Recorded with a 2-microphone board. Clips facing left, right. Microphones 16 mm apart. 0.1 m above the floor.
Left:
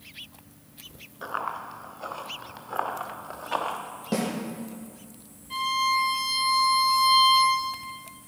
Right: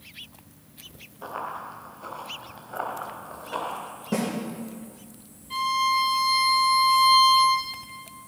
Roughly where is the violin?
Centre.